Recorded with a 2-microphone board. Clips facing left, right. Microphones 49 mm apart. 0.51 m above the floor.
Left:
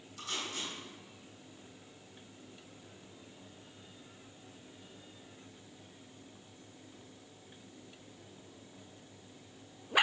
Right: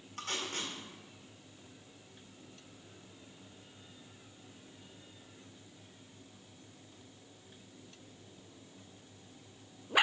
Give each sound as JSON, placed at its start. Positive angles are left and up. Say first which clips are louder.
{"t": 0.2, "sound": "tape being pulled", "louder": "right 1 dB", "side_deg": -50, "distance_m": 1.8}